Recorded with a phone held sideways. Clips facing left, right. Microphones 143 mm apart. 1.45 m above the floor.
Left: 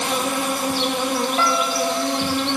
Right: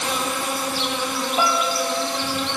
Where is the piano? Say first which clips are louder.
Left 1 dB; 15° right (ahead or behind), 1.9 m.